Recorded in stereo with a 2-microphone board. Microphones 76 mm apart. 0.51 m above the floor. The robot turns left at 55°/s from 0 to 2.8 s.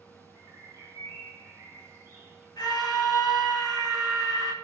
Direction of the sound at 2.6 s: 70° left (ahead or behind).